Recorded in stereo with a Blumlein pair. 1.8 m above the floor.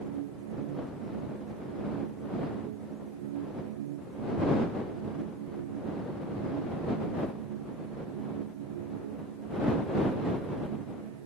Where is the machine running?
55° right.